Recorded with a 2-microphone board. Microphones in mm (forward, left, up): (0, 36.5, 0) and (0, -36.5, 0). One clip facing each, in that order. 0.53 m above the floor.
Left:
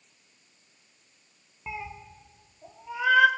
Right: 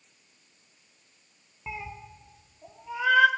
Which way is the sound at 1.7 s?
Centre (ahead or behind).